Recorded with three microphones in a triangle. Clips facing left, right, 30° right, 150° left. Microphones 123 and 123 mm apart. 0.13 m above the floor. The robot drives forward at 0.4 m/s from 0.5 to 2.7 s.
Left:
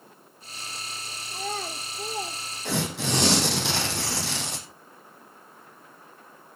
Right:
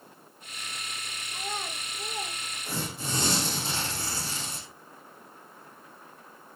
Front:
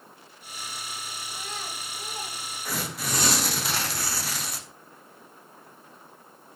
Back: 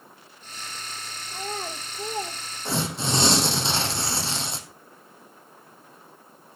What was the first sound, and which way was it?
A child speaking, 110° left.